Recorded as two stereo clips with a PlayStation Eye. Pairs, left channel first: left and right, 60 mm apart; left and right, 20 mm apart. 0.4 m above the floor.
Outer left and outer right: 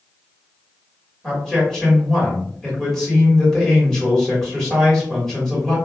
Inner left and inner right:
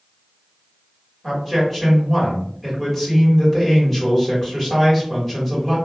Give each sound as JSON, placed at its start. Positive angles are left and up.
{"t": 1.2, "sound": "a man speaking", "side_deg": 10, "distance_m": 1.6}